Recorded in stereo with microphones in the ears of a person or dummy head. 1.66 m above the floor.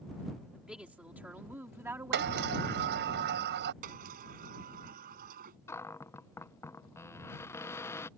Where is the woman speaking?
5° right (ahead or behind); by 2.6 s 20° right (ahead or behind).